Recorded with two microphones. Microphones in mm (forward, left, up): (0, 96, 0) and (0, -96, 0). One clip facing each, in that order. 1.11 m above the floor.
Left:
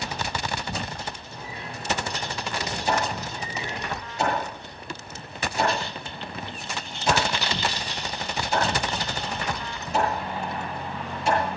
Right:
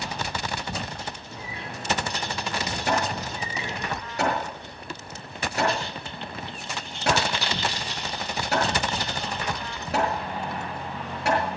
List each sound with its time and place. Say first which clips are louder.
1.3 s a bird: even; 85° right, 6.5 m
2.9 s hammering: even; 75° right (ahead or behind), 7 m